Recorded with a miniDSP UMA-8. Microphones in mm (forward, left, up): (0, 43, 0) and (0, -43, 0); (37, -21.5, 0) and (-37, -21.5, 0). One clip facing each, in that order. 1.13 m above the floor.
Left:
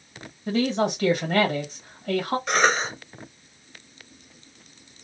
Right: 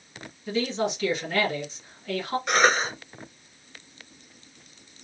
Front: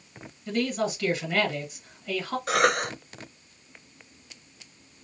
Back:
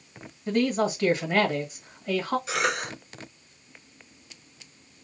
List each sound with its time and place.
0.5 s a man speaking: 130° left, 1.6 m
2.5 s a cough: 5° right, 1.1 m